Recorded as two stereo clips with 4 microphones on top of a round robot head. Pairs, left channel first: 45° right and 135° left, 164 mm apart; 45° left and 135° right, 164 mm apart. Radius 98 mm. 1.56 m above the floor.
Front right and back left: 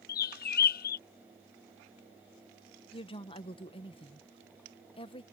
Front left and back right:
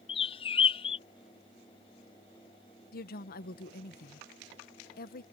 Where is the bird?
15° right.